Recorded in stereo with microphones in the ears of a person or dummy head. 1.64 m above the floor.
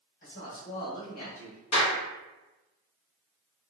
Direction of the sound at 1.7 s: 80° left.